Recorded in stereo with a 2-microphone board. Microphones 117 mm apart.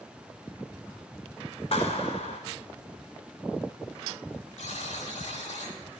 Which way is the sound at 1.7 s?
65° left (ahead or behind).